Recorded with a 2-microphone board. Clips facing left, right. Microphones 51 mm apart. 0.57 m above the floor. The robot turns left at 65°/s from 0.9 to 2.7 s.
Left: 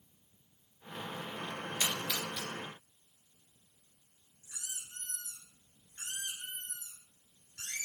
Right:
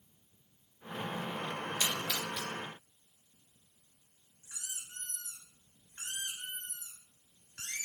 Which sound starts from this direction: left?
A splash, at 1.8 s.